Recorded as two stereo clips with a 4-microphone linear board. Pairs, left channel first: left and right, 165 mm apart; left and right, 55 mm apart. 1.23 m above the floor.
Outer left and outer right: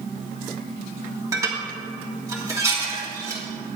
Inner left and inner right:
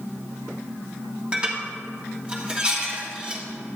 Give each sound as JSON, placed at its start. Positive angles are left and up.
{"t": 1.3, "sound": "dishes clattering", "side_deg": -20, "distance_m": 1.7}